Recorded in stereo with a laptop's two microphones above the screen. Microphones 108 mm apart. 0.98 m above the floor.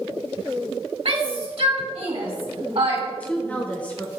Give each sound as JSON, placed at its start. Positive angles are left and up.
{"t": 1.1, "sound": "a shout", "side_deg": -65, "distance_m": 2.0}
{"t": 3.1, "sound": "a woman speaking", "side_deg": 15, "distance_m": 0.5}